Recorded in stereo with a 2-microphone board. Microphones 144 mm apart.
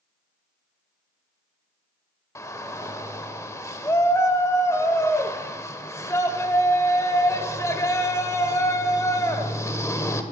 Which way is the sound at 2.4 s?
20° left (ahead or behind).